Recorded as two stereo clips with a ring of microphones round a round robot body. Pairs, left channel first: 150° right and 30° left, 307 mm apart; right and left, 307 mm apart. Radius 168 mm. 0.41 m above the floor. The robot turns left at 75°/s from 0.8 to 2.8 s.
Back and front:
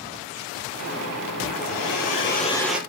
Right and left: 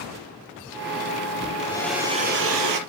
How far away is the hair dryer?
About 4.5 m.